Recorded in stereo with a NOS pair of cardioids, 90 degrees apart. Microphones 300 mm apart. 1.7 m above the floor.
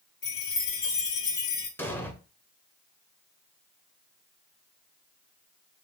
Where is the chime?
50° left, 1.4 m.